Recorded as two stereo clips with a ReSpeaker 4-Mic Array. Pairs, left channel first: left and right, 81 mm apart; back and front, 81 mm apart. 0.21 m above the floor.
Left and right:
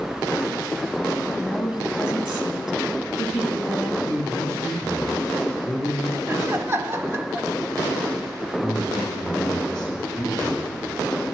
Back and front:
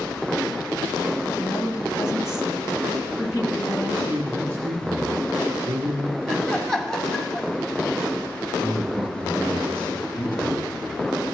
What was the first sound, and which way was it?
A woman speaking, 165° right.